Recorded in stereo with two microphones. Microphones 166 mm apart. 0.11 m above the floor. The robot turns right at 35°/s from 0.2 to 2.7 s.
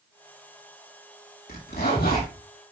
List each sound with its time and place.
1.5 s a zipper: 65° left (ahead or behind), 3.5 m; by 2.3 s 60° left (ahead or behind), 3.5 m